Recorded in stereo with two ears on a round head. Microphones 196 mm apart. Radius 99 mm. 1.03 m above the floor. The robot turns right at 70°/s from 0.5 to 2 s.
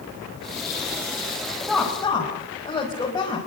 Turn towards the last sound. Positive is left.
turn(degrees=15)  # may be behind; listen again after turning